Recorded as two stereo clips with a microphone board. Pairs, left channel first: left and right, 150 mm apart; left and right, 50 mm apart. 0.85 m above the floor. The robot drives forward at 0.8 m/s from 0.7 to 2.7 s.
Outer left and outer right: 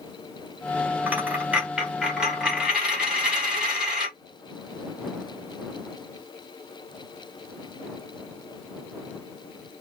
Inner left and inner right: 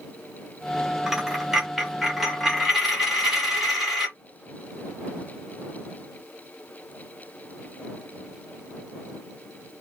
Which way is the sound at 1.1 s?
10° right (ahead or behind).